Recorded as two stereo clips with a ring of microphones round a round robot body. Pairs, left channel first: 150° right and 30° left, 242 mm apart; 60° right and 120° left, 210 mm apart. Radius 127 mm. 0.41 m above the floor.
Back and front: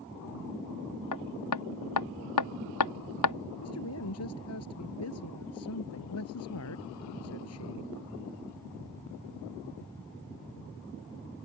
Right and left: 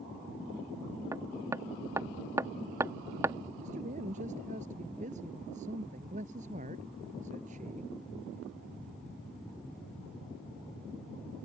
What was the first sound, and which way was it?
Hammering, 160° right.